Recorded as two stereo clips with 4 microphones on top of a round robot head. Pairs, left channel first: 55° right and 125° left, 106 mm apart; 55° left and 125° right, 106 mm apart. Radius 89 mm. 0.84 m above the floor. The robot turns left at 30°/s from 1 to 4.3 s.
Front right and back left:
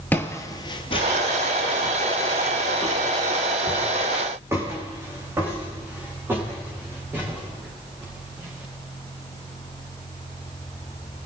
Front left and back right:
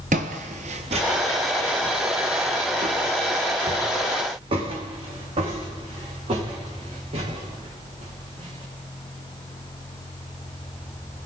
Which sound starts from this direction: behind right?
Footsteps, at 0.1 s.